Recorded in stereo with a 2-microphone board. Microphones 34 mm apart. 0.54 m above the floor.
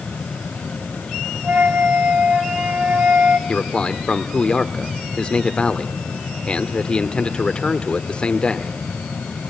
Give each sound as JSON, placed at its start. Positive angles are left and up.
{"t": 1.4, "sound": "a flute", "side_deg": -60, "distance_m": 3.5}
{"t": 3.5, "sound": "a man speaking", "side_deg": 30, "distance_m": 1.5}